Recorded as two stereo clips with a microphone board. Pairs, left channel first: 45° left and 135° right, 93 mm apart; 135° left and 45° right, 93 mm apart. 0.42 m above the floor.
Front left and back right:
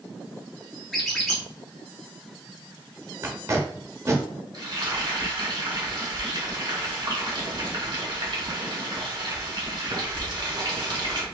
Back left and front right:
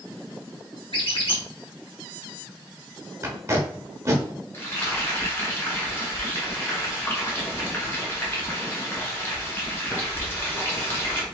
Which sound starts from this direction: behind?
Frying, at 4.5 s.